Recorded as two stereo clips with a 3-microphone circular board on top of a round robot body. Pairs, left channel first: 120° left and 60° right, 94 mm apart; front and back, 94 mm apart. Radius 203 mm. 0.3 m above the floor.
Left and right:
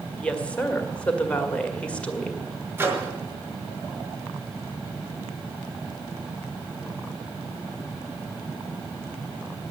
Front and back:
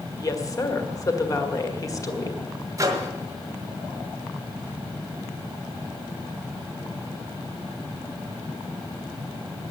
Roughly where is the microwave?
Behind right.